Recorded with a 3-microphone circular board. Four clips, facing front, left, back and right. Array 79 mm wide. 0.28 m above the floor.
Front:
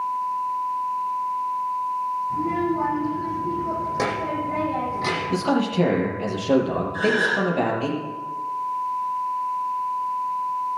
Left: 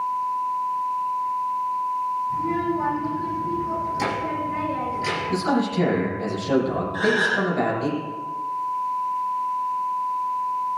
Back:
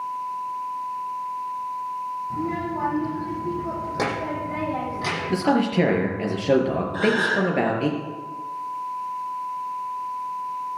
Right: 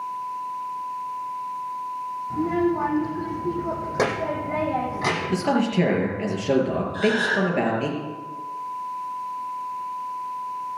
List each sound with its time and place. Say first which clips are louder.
2.3 s a child speaking: right 1 dB, front 3 dB; 115° right, 8.5 m; by 5.5 s 85° right, 7 m
5.3 s a man speaking: even, back 3 dB; 160° right, 4.5 m
6.9 s a gasp: even, even; 150° left, 6 m